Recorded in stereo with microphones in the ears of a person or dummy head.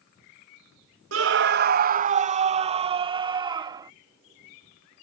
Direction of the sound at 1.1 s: 70° right (ahead or behind).